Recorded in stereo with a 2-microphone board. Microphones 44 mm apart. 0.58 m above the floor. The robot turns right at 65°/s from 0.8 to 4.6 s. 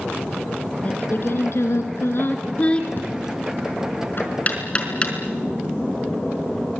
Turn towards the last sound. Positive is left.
turn(degrees=25)  # may be behind; listen again after turning